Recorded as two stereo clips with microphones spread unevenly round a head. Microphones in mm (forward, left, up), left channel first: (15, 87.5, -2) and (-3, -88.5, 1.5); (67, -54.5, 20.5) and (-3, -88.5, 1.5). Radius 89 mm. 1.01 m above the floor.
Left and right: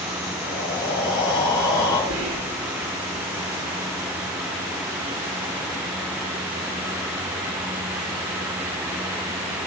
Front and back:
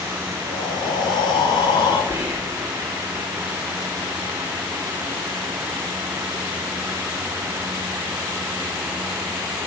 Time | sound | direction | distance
0.5 | breathing | 15° left | 3 m
2.1 | whispering | 105° right | 4 m